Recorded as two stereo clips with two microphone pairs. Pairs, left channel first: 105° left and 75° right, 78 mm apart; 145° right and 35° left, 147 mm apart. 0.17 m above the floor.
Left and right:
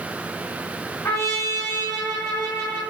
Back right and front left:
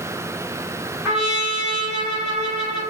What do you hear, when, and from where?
1.1 s a trumpet: 110° left, 1.6 m